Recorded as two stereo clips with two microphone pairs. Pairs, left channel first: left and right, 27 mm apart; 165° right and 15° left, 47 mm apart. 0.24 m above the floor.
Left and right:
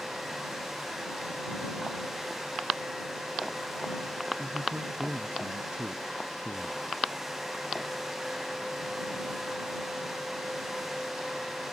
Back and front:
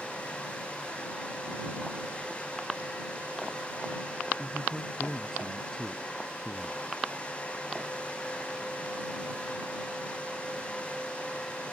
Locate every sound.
4.4 s a man speaking: 85° right